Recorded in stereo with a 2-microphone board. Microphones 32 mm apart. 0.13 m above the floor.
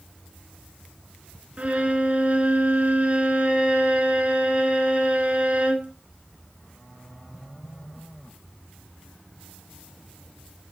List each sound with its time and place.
1.6 s a violin: 40° right (ahead or behind), 0.9 m